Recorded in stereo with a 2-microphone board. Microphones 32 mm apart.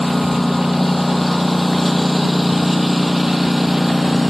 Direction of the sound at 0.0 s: 5° left (ahead or behind).